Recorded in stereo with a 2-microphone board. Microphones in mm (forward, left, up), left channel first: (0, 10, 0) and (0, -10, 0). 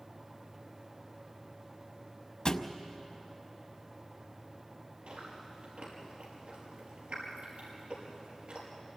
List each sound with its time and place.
2.5 s a thud: 45° left (ahead or behind), 0.8 m
5.1 s chewing: 70° right (ahead or behind), 6 m